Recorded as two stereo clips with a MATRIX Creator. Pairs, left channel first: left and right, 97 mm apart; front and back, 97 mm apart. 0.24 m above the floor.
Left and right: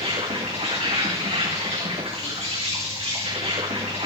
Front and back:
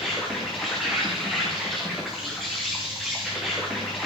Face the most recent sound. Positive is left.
turn(degrees=-90)